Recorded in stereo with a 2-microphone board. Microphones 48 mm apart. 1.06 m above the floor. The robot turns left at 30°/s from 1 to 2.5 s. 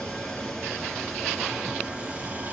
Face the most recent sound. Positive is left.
turn(degrees=-40)